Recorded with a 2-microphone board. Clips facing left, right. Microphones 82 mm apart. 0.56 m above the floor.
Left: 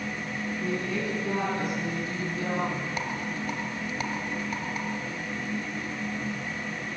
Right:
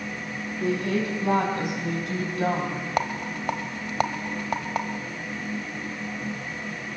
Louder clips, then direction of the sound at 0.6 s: Right 7 dB; 80° right.